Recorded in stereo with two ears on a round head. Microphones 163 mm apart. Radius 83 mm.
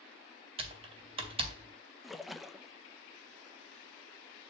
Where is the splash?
Centre (ahead or behind), 0.6 m.